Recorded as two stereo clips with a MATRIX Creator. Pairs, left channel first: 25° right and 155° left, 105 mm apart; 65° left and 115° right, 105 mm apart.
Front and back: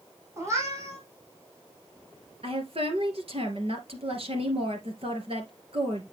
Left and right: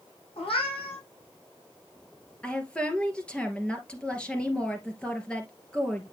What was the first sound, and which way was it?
A cat meowing, 95° left.